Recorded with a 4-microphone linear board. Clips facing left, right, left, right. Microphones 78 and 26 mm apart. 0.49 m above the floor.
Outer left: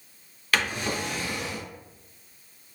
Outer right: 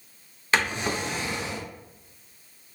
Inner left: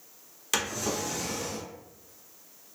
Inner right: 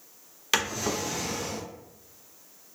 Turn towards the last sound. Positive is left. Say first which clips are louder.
# outer right 2 dB, inner right 3 dB
turn(degrees=-25)  # may be behind; listen again after turning